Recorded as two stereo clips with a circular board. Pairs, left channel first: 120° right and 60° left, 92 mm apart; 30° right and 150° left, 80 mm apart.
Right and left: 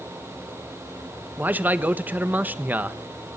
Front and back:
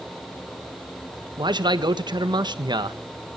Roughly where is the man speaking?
Behind left.